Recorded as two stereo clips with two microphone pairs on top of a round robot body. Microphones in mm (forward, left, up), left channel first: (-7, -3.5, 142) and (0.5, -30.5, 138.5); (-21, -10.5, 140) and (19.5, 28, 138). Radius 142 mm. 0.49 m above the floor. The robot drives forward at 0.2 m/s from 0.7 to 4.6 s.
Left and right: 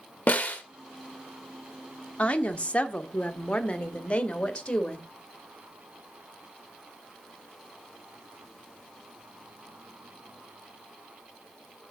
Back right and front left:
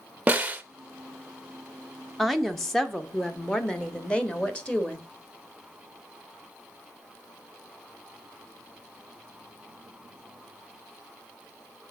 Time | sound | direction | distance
0.3 | a snare drum | 100° left | 1.0 m
2.2 | a woman speaking | 135° left | 1.0 m